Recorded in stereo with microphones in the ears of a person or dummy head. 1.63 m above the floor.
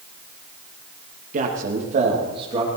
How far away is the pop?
No pop in this recording.